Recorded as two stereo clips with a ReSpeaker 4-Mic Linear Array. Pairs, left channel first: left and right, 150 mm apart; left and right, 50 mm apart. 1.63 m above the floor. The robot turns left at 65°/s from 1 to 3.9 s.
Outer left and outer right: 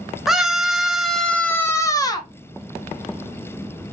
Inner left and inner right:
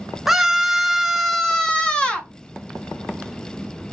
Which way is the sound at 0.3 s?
5° right (ahead or behind).